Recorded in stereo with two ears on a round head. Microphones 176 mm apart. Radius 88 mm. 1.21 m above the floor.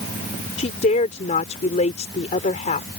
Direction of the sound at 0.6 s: 35° left (ahead or behind).